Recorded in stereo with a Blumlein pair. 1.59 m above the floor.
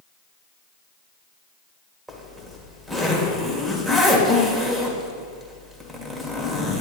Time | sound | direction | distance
2.1 | a zipper | 5° right | 1.6 m